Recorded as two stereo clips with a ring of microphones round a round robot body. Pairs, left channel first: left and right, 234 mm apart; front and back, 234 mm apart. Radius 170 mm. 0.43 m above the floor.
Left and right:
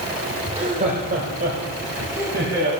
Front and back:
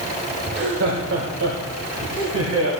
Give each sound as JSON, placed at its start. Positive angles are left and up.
{"t": 0.5, "sound": "laughter", "azimuth_deg": -150, "distance_m": 1.0}